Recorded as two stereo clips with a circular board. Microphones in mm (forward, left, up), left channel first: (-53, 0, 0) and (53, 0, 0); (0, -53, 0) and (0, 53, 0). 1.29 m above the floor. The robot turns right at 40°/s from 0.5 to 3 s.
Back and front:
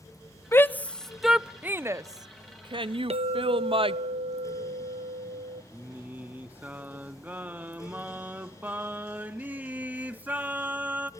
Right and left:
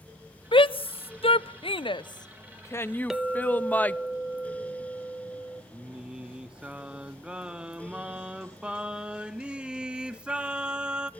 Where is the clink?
5° left, 0.7 m.